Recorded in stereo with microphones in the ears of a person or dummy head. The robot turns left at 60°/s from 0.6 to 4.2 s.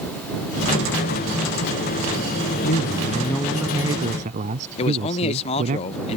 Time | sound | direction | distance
2.6 | a man speaking | 50° left | ?
4.8 | a man speaking | 35° left (ahead or behind) | ?